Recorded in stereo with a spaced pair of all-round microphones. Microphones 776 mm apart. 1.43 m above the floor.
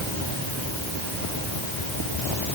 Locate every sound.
Only background noise.